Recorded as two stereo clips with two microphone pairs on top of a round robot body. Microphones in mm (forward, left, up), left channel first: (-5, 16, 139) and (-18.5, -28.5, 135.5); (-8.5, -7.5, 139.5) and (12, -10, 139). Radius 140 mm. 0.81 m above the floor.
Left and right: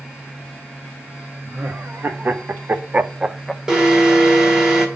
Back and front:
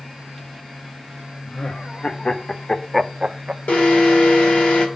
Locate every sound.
1.4 s laughter: 150° right, 2.0 m; by 3.6 s 15° right, 0.9 m
3.7 s an alarm: 175° left, 2.0 m